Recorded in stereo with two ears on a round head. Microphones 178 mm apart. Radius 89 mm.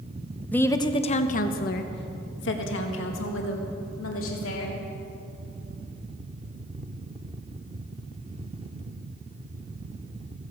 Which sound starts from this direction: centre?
A woman speaking, at 0.5 s.